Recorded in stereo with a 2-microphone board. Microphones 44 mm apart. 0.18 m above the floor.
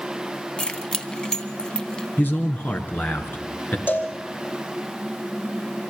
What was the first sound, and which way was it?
Keys jangling, 20° left (ahead or behind).